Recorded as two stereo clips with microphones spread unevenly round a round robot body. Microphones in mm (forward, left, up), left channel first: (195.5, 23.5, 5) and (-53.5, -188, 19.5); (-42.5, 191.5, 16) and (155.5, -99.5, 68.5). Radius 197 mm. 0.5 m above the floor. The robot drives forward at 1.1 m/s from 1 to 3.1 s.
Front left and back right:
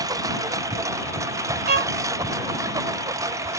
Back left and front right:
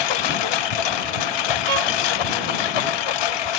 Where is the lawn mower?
140° left.